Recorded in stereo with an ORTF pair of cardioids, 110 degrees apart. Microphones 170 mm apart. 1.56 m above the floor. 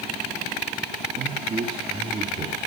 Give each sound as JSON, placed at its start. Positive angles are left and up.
{"t": 1.2, "sound": "a man speaking", "azimuth_deg": -30, "distance_m": 3.0}